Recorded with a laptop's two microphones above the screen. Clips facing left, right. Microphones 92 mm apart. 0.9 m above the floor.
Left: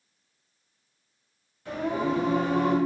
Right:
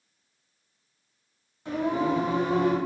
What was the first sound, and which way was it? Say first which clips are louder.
Singing: right 2 dB; 20° right (ahead or behind).